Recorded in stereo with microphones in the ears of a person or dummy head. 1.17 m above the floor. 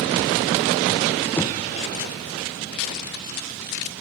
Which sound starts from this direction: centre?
Knocking, at 1.4 s.